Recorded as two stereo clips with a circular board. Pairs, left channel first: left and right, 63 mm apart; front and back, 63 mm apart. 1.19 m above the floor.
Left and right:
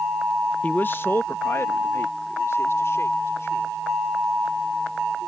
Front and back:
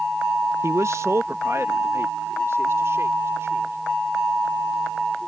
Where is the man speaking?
150° left; by 3.8 s 135° left.